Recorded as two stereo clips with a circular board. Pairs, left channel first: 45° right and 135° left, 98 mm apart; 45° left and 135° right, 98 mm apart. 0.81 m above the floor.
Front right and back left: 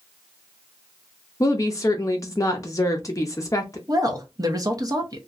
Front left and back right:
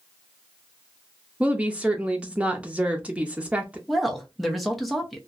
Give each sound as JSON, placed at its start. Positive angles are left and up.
{"t": 1.4, "sound": "a woman speaking", "azimuth_deg": -70, "distance_m": 0.6}
{"t": 3.9, "sound": "a woman speaking", "azimuth_deg": 135, "distance_m": 0.8}